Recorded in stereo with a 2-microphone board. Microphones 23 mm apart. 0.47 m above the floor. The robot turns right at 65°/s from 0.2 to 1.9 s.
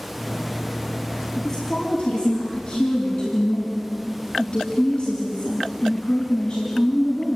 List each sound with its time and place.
1.4 s a woman speaking: 15° left, 4.5 m; by 7.4 s 50° left, 4.5 m